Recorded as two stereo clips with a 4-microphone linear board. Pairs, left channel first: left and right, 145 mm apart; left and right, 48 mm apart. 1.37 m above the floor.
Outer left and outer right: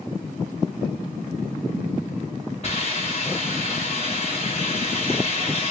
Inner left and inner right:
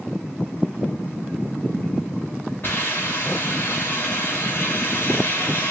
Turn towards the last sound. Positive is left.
turn(degrees=50)  # may be behind; listen again after turning